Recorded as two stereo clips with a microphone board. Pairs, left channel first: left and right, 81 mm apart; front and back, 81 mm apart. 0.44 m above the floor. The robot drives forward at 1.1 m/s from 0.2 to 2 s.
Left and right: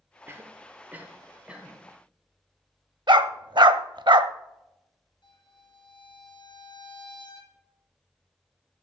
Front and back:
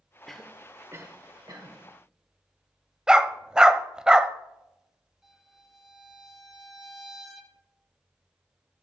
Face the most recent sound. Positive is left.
turn(degrees=95)